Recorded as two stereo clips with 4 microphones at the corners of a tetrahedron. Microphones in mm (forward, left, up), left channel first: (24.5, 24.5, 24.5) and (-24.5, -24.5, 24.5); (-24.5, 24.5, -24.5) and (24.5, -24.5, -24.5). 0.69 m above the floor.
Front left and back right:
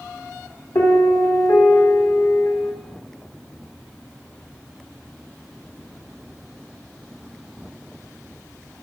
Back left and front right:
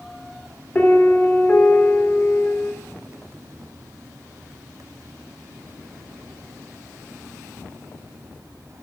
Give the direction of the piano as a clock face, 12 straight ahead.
10 o'clock.